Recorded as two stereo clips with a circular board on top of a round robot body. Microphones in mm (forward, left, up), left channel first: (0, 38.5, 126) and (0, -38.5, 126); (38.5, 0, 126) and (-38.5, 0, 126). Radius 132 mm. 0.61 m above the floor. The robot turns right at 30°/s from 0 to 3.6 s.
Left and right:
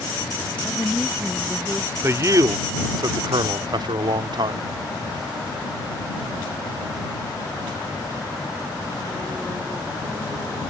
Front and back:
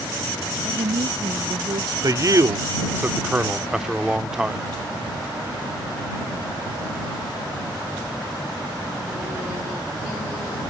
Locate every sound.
0.6 s a woman speaking: 165° left; by 1.9 s 155° right
2.0 s a man speaking: 145° right; by 4.6 s 100° right